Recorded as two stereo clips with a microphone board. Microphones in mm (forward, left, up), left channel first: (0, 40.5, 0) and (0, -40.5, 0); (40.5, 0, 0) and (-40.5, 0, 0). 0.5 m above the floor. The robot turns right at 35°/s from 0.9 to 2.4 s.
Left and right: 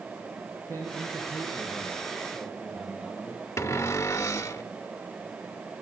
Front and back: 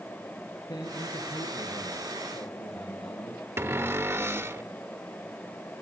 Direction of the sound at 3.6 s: 130° left.